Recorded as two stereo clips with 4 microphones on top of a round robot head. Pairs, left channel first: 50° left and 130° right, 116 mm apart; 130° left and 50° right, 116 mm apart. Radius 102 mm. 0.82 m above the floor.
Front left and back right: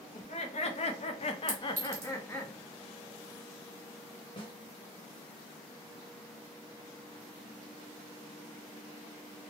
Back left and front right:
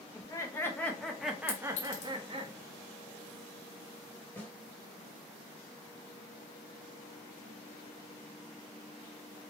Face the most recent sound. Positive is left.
turn(degrees=60)